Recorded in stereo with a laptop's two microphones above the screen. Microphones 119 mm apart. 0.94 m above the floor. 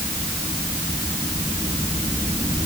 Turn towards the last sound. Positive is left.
No sound to turn to.